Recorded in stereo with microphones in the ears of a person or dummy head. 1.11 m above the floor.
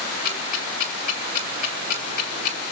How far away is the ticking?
About 4.5 m.